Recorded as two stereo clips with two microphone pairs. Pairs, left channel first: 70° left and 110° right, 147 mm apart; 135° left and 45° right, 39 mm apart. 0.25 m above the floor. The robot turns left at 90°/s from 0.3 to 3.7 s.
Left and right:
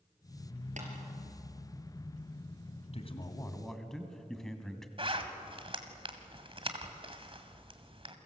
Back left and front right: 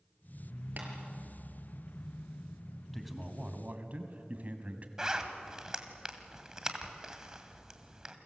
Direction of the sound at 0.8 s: 75° right.